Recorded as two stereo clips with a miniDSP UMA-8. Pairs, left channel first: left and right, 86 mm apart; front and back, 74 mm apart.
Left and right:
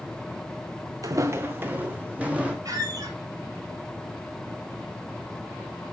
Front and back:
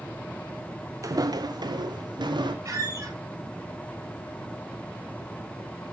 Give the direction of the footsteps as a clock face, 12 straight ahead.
5 o'clock.